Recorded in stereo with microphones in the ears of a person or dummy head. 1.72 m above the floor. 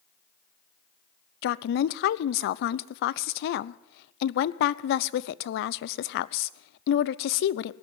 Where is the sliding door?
I don't hear a sliding door.